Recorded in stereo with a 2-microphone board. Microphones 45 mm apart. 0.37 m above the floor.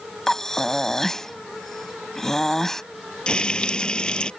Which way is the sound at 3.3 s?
25° left (ahead or behind).